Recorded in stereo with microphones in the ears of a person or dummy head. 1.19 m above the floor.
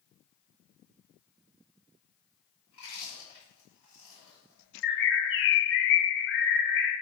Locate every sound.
2.7 s chewing: 25° left (ahead or behind), 3 m
4.8 s a bird: 55° left (ahead or behind), 1.0 m